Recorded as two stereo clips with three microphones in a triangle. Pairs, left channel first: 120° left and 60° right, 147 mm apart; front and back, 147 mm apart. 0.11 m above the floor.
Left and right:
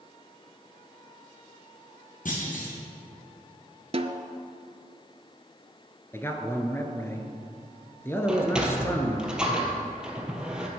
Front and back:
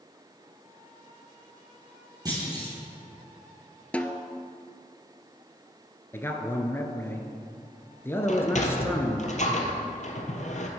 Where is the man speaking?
60° left, 1.3 m.